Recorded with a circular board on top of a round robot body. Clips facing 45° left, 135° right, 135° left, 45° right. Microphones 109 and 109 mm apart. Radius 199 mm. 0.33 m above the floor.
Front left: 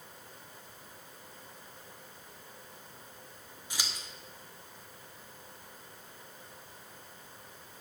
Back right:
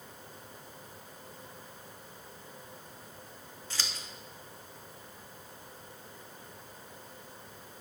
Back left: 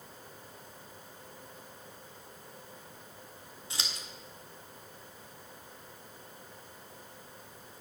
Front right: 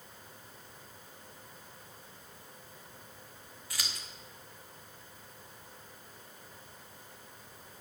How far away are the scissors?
About 1.6 m.